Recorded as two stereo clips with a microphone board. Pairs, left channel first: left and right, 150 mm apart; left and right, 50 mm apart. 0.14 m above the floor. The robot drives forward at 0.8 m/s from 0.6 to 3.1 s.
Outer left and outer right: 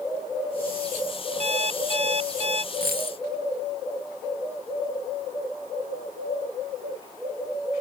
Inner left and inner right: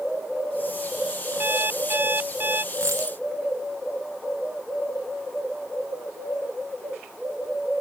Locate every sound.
1.4 s an alarm clock: 45° right (ahead or behind); by 2.6 s 40° right (ahead or behind)
2.7 s a dropped coin: 80° right